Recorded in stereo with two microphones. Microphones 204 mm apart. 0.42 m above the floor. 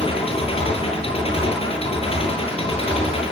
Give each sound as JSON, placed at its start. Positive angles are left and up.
{"t": 0.0, "sound": "an engine running", "side_deg": 25, "distance_m": 8.5}